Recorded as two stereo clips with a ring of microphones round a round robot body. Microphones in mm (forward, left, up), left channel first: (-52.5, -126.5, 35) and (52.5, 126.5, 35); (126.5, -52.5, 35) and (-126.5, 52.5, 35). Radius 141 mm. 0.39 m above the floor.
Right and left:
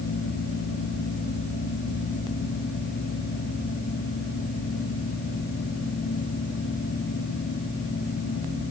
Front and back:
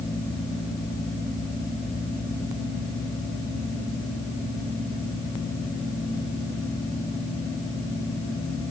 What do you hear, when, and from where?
Only background noise.